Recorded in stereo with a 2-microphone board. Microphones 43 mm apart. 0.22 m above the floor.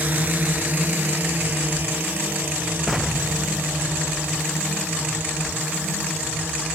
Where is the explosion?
5° right (ahead or behind).